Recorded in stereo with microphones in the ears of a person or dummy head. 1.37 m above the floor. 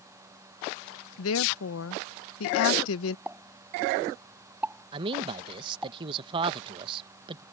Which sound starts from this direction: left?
A woman speaking, at 1.2 s.